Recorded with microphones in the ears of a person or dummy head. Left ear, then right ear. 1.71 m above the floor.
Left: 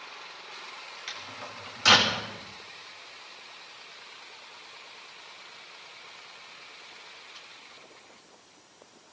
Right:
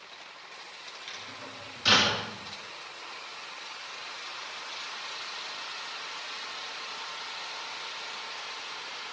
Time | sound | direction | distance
1.1 | a microwave | 40° left (ahead or behind) | 3 m